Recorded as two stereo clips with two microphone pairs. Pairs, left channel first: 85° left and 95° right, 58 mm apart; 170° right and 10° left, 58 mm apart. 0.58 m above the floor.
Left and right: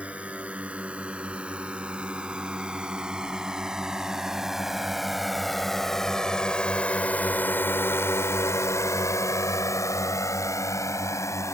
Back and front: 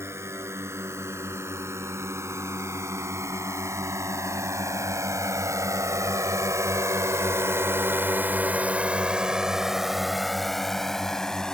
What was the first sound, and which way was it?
A drone, 30° right.